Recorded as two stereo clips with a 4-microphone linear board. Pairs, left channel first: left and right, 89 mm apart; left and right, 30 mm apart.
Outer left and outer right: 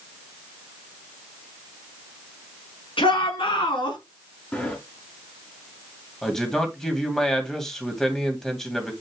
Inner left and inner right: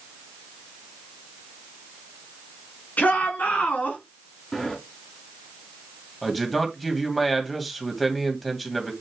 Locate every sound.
3.0 s a shout: 75° left (ahead or behind), 4 m; by 4.0 s 60° left (ahead or behind), 3.5 m
4.5 s a sliding door: 15° left (ahead or behind), 3 m
6.2 s a man speaking: 5° left (ahead or behind), 2.5 m